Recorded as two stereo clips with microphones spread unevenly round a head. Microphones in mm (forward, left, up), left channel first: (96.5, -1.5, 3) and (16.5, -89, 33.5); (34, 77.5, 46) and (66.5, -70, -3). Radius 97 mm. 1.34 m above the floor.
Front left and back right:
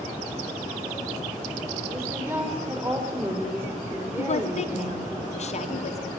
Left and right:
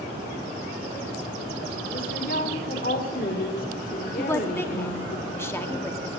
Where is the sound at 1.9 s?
150° left, 5 m.